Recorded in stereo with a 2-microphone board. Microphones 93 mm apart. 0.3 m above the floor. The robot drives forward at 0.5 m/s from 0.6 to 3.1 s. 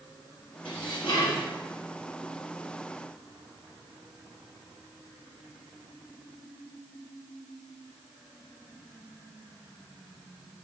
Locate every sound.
0.7 s dishes clattering: 60° left (ahead or behind), 5 m